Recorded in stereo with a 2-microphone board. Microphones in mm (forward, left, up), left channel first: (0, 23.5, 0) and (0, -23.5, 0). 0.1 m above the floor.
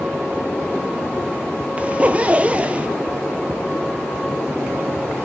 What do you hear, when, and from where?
1.8 s a zipper: 25° right (ahead or behind), 0.6 m